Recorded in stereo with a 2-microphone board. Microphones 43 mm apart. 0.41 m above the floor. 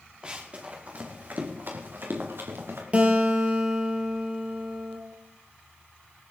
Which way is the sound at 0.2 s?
25° right (ahead or behind).